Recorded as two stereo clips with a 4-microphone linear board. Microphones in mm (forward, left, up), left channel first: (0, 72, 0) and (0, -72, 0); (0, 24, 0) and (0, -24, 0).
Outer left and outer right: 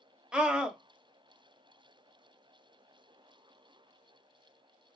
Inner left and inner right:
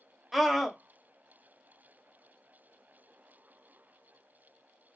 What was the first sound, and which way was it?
A scream, 5° right (ahead or behind).